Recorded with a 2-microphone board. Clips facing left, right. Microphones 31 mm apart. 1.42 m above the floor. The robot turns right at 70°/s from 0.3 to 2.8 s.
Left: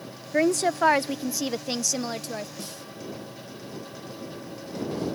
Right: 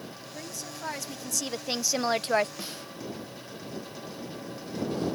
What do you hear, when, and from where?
0.3 s a woman speaking: 90° left; by 2.5 s 120° right
2.6 s a snare drum: 25° right (ahead or behind); by 2.9 s 40° right (ahead or behind)